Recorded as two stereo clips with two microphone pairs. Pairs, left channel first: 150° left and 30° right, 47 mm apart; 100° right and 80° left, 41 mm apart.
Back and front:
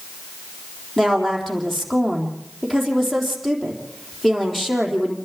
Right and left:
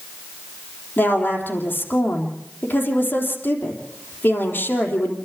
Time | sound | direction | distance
1.0 | a woman speaking | 125° right | 3.5 m